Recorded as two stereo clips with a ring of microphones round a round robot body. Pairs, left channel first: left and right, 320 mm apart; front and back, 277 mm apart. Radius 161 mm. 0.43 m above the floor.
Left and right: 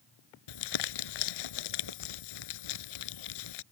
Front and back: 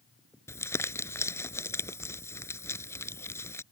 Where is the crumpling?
80° left.